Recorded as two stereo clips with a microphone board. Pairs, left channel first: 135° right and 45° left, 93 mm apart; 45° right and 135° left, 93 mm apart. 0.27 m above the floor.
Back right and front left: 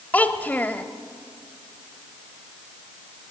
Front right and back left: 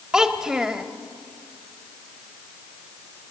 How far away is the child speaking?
About 0.9 m.